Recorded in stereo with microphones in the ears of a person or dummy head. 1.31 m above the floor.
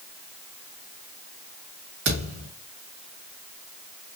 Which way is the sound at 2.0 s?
70° right (ahead or behind).